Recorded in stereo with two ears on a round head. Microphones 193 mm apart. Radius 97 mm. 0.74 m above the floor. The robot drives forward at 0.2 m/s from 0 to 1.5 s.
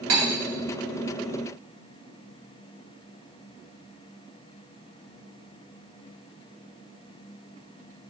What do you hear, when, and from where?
0.1 s cutlery clinking: 70° right (ahead or behind), 1.5 m; by 0.2 s 75° right (ahead or behind), 1.5 m